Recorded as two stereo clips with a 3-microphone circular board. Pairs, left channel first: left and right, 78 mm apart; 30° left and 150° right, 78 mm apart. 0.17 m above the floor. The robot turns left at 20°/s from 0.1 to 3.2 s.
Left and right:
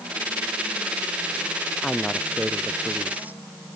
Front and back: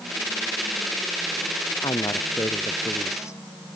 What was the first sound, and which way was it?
A woman speaking, 5° left.